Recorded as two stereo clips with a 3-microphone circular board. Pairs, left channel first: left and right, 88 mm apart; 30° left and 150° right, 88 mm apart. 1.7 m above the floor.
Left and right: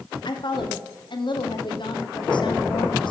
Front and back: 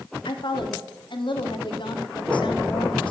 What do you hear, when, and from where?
0.2 s a woman speaking: 60° left, 0.9 m